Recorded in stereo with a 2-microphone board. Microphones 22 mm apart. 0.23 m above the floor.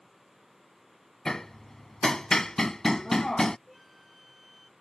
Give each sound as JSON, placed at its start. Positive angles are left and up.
{"t": 1.2, "sound": "hammering", "side_deg": 25}
{"t": 3.7, "sound": "a flute", "side_deg": 0}